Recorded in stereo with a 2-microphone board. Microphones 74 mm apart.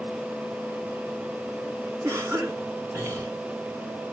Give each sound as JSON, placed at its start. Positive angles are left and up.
{"t": 2.0, "sound": "a cough", "side_deg": -40, "distance_m": 3.0}